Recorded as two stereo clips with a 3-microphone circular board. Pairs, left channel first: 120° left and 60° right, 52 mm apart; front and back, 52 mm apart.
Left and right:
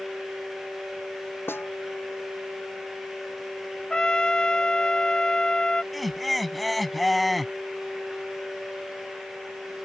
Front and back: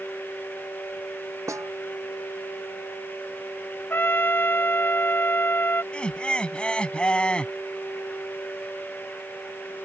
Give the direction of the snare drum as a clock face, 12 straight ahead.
7 o'clock.